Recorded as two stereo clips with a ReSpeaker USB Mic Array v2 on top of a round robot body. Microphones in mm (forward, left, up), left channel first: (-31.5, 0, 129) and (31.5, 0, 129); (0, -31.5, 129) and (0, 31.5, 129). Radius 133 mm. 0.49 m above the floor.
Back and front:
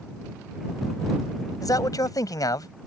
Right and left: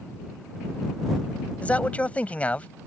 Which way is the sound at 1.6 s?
155° right.